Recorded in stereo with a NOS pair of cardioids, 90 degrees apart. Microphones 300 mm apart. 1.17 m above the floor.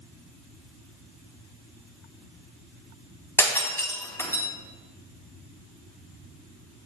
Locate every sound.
3.4 s breaking glass: 5° left, 4 m